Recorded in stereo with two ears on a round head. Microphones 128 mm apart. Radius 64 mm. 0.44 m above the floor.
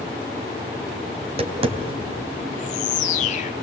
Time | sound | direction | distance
1.2 | tapping | 45° right (ahead or behind) | 3 m
2.5 | a bird | 55° left (ahead or behind) | 1.2 m